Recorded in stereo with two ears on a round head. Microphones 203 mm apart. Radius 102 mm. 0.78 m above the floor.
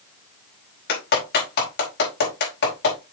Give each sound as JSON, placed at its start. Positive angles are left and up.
{"t": 0.9, "sound": "a clap", "side_deg": 50, "distance_m": 4.5}